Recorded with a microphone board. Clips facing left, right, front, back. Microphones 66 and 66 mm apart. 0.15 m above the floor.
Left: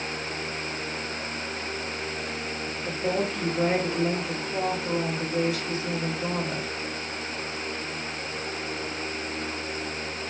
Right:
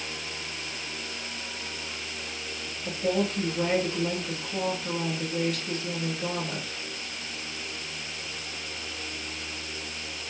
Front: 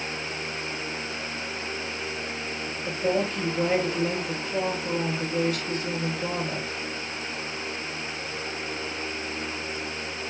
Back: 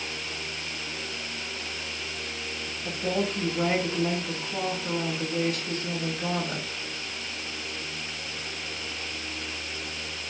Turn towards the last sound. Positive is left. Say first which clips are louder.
# right 1 dB, front 3 dB
turn(degrees=155)